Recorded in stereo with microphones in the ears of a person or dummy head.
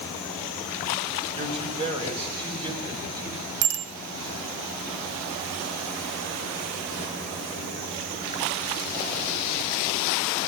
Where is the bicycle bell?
80° right, 3 m.